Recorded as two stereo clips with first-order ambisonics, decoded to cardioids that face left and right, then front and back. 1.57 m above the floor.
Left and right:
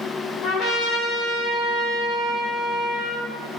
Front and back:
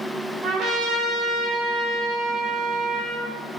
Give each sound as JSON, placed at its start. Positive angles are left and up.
{"t": 0.4, "sound": "a trumpet", "azimuth_deg": 135, "distance_m": 3.0}